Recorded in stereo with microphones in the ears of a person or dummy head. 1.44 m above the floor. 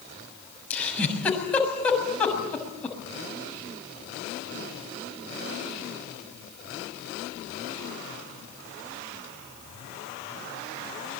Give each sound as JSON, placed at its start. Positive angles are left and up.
{"t": 0.7, "sound": "a giggle", "side_deg": 5, "distance_m": 6.5}